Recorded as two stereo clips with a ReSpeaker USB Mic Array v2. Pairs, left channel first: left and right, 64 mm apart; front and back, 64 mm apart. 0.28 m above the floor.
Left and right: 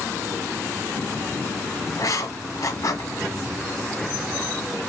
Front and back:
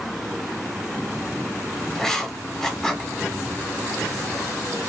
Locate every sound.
1.9 s writing: 80° left, 1.2 m